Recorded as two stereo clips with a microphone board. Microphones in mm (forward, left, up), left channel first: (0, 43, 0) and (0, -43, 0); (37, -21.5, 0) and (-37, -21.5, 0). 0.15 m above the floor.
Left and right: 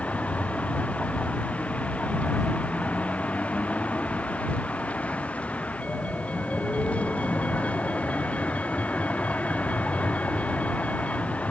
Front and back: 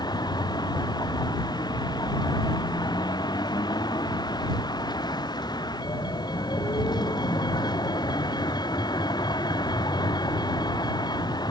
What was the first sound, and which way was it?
A vehicle, 15° left.